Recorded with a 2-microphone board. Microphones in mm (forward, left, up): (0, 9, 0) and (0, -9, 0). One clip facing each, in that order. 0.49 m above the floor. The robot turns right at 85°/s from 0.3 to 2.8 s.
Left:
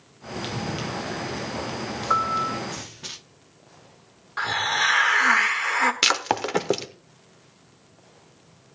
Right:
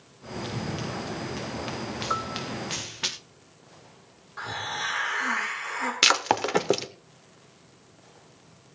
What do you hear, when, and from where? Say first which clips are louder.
0.4 s running footsteps: left 3 dB; 45° left (ahead or behind), 3 m; by 3.1 s 55° right (ahead or behind), 3 m
2.1 s a piano: left 10 dB; 20° left, 0.6 m; by 2.6 s 60° left, 0.6 m
4.4 s a hiss: left 9 dB; 45° left (ahead or behind), 1.3 m
6.0 s breaking glass: even; centre (ahead or behind), 0.7 m